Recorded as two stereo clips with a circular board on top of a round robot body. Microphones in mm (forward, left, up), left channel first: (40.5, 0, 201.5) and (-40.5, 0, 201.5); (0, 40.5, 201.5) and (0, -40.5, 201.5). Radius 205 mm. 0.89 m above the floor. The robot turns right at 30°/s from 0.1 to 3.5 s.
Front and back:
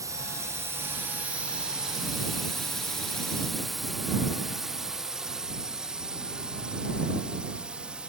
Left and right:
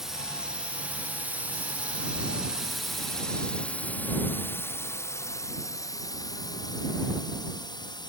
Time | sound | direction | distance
0.0 | a drone | 175° right | ?